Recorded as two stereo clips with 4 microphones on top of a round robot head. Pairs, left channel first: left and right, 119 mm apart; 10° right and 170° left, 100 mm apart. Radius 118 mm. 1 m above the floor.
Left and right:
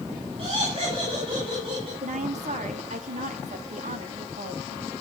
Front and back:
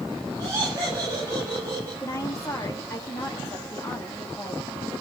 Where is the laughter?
130° right, 7.5 m.